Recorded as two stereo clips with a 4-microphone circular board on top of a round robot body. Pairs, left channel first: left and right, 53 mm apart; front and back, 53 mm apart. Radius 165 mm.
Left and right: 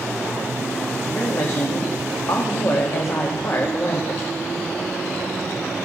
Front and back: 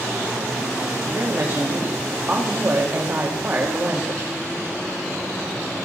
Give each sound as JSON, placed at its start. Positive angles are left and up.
{"t": 1.1, "sound": "a woman speaking", "azimuth_deg": 125, "distance_m": 2.0}